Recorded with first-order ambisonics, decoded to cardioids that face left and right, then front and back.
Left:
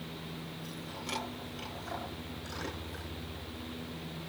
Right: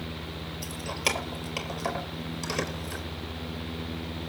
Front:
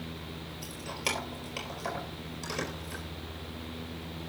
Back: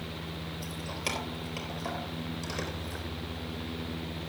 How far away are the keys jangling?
About 4 m.